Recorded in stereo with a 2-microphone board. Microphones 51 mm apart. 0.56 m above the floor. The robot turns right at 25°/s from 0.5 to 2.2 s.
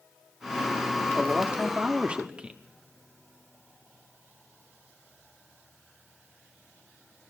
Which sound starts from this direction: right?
A man speaking, at 1.1 s.